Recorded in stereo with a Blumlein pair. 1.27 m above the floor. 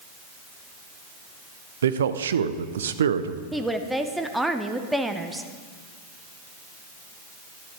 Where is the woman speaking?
Straight ahead, 0.8 m.